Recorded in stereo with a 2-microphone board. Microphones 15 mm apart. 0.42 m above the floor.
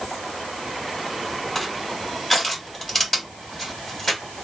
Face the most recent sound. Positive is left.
turn(degrees=5)  # may be behind; listen again after turning